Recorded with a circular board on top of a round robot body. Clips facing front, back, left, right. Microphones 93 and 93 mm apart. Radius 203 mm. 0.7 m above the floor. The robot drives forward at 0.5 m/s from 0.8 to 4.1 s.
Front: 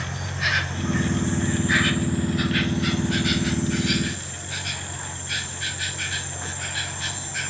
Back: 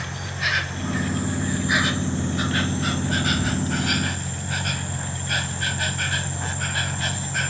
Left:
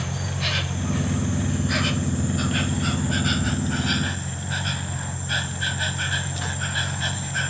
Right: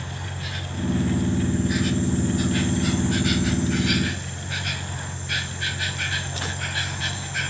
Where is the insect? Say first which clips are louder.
Even, left 5 dB; 90° left; by 7.5 s 140° left.